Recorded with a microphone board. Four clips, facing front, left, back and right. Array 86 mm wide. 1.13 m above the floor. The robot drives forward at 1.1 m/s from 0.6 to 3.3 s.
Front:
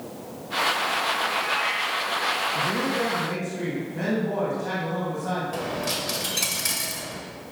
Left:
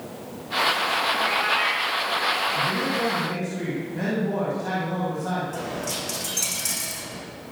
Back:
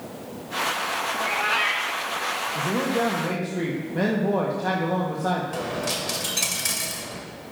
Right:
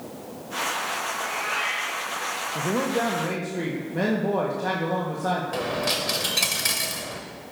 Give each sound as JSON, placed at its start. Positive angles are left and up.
{"t": 1.1, "sound": "a cat meowing", "azimuth_deg": 130, "distance_m": 0.8}
{"t": 2.5, "sound": "a man speaking", "azimuth_deg": -105, "distance_m": 0.9}
{"t": 5.5, "sound": "a dropped coin", "azimuth_deg": -95, "distance_m": 1.2}